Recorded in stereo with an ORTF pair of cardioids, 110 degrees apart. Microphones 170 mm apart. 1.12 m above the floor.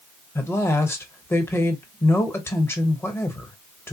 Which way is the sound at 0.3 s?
15° left.